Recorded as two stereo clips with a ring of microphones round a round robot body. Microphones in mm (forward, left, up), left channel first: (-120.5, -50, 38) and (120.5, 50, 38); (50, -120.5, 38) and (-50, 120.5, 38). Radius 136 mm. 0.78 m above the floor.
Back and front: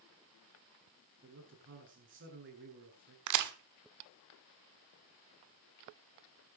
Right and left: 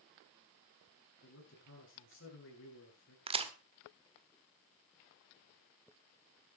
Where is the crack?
45° left, 1.6 m.